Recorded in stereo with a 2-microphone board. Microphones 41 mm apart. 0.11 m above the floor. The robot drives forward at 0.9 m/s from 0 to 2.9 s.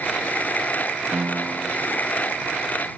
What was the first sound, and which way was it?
A piano, 65° right (ahead or behind).